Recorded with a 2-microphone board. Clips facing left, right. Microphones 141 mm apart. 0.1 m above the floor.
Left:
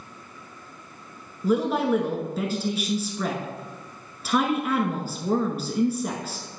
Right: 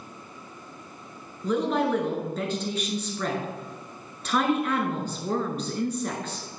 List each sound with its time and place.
1.4 s a woman speaking: 5° left (ahead or behind), 1.1 m